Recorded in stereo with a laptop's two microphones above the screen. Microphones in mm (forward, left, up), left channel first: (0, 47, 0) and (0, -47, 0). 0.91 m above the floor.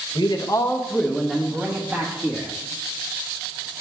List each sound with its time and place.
0.1 s a man speaking: 55° left (ahead or behind), 0.8 m; by 2.5 s 20° right (ahead or behind), 1.8 m